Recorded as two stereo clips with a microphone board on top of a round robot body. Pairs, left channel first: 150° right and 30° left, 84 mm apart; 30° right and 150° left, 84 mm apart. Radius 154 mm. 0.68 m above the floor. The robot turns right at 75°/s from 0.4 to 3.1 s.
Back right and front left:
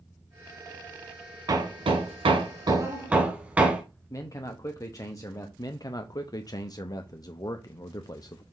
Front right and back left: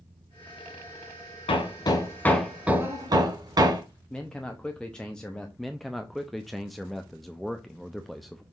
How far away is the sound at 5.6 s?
About 0.8 m.